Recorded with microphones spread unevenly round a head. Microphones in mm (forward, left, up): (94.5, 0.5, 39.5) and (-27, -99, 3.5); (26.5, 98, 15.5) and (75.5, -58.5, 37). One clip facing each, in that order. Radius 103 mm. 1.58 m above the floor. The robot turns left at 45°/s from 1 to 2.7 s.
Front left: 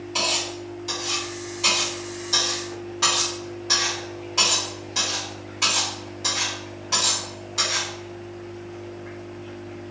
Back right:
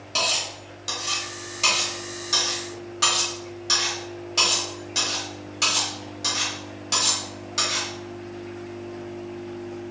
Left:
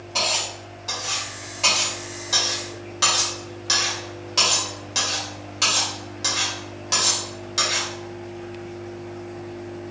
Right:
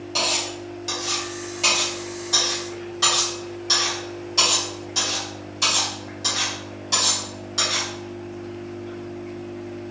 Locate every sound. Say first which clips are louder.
0.1 s cutlery clinking: even, even; 130° right, 1.7 m; by 7.9 s 150° left, 1.7 m